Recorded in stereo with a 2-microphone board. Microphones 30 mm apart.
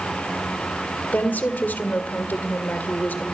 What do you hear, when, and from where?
1.1 s a woman speaking: 75° left (ahead or behind), 1.8 m